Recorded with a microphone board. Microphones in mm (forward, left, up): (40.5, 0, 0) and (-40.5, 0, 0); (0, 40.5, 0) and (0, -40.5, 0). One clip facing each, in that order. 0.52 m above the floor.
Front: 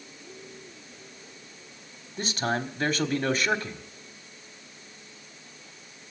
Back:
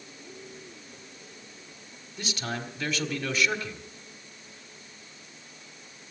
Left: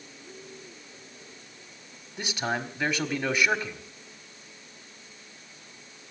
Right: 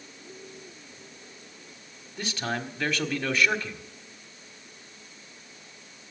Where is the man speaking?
15° left, 1.4 m.